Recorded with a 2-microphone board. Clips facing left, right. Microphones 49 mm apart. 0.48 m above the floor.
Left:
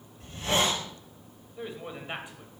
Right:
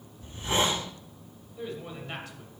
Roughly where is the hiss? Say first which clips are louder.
Even; left.